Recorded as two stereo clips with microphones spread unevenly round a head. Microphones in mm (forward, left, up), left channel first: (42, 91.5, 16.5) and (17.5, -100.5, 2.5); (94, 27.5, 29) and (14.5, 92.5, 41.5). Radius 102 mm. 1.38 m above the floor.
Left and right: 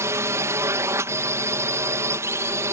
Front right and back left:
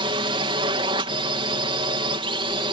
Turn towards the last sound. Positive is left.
turn(degrees=-170)